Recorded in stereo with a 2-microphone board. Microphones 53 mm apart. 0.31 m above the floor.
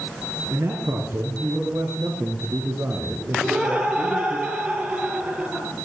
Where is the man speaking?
60° right (ahead or behind), 5.5 m; by 4.4 s 40° right (ahead or behind), 4.5 m.